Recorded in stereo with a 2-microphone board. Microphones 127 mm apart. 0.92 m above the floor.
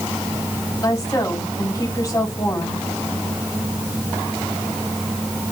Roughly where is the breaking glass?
No breaking glass in this recording.